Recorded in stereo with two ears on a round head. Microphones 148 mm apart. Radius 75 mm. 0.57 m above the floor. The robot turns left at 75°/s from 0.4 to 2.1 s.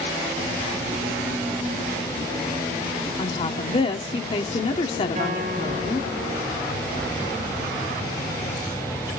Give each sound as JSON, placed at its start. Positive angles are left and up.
{"t": 3.2, "sound": "a woman speaking", "side_deg": 35, "distance_m": 1.6}
{"t": 5.2, "sound": "a guitar", "side_deg": -40, "distance_m": 6.5}